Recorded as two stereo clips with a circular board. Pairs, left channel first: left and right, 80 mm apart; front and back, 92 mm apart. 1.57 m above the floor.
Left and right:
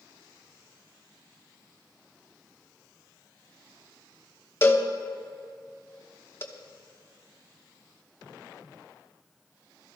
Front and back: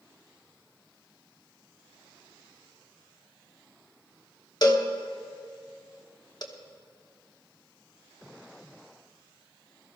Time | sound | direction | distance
4.6 | a cowbell | 35° left | 1.2 m